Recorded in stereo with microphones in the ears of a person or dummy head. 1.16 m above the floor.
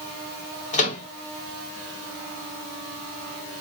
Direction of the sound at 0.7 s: 40° left (ahead or behind).